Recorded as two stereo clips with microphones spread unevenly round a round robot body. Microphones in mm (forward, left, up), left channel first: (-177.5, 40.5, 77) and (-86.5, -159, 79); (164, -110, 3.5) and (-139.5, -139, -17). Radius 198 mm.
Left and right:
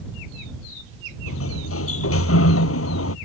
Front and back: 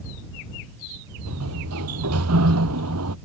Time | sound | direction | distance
1.3 | a sliding door | 130° left | ?